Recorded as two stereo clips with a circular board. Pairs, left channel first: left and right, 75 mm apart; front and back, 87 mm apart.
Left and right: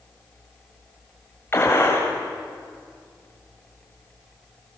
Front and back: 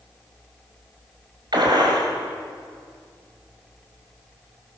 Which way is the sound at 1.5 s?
145° left.